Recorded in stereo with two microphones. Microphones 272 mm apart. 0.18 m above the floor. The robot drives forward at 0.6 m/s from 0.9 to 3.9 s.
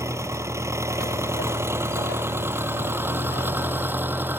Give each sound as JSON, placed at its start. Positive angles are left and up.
{"t": 0.0, "sound": "an engine running", "side_deg": -10}